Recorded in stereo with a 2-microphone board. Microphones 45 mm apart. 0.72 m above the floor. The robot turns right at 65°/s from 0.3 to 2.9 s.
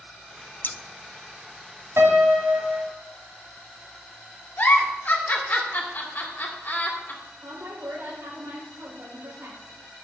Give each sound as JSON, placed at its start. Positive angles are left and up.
{"t": 0.6, "sound": "scissors", "side_deg": 40, "distance_m": 0.5}
{"t": 2.0, "sound": "a piano", "azimuth_deg": -105, "distance_m": 1.5}
{"t": 4.6, "sound": "a giggle", "side_deg": 45, "distance_m": 2.0}
{"t": 7.4, "sound": "a woman speaking", "side_deg": -75, "distance_m": 3.5}